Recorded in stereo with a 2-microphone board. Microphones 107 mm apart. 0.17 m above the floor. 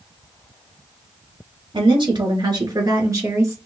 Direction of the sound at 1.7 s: 50° right (ahead or behind).